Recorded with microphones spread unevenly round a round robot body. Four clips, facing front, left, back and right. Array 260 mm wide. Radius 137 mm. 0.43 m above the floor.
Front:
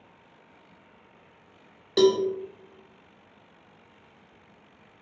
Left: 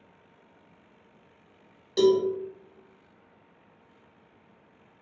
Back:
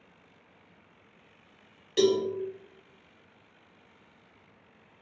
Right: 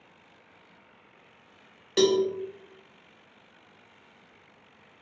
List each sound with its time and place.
2.0 s a cowbell: 40° right, 0.6 m